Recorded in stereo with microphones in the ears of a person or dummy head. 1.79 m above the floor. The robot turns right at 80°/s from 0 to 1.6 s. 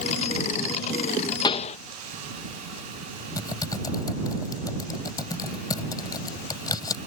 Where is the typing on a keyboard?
15° left (ahead or behind).